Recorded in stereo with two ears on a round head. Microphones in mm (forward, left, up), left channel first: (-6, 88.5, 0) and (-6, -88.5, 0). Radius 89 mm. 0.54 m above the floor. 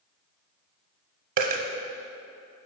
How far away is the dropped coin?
About 0.7 m.